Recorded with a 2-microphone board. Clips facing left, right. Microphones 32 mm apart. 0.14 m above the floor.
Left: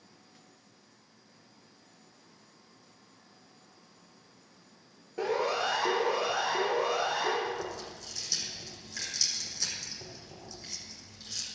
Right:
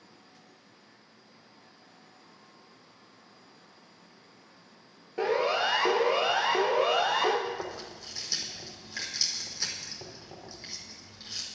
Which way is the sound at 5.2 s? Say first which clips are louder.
Right 3 dB; 20° right (ahead or behind).